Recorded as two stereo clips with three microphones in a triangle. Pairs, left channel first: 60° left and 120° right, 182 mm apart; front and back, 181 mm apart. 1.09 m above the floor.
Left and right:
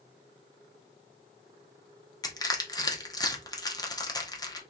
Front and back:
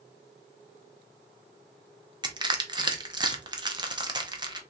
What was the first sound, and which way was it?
Crushing, 120° left.